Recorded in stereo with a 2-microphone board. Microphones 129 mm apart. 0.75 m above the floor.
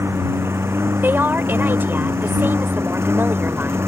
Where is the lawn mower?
20° right (ahead or behind).